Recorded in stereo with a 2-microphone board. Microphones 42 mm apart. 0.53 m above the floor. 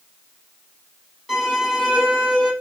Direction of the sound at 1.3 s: Centre (ahead or behind).